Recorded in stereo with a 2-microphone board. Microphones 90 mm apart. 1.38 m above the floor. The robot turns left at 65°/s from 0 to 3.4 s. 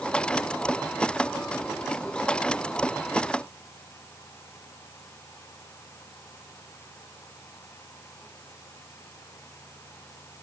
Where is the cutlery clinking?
I don't hear cutlery clinking.